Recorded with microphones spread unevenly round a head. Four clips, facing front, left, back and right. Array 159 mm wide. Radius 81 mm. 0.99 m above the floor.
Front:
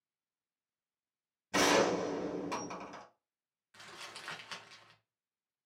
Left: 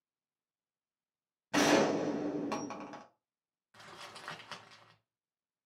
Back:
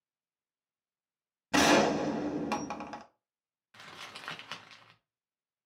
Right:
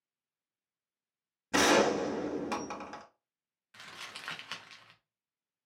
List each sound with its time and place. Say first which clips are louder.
1.5 s a gunshot: right 2 dB, back 4 dB; 155° right, 0.9 m
3.7 s crumpling: right 1 dB, back 3 dB; 175° right, 0.6 m